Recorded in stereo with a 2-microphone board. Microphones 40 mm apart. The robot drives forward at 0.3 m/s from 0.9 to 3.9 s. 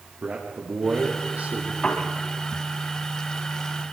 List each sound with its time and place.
0.2 s a man speaking: 40° right (ahead or behind), 4.5 m
1.8 s a piano: 30° left (ahead or behind), 3.5 m